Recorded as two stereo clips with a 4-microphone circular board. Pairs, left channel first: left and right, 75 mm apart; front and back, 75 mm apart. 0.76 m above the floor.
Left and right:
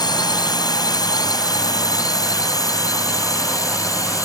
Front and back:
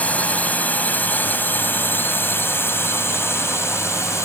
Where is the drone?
70° left; by 4.3 s 50° left.